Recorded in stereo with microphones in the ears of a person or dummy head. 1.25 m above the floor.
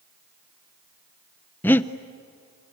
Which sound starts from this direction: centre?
Breathing, at 1.6 s.